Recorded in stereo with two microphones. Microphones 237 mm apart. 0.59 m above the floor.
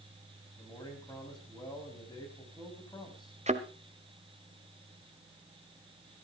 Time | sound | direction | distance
0.6 | a man speaking | 15° left (ahead or behind) | 5 m
3.5 | a thud | 30° right (ahead or behind) | 1.2 m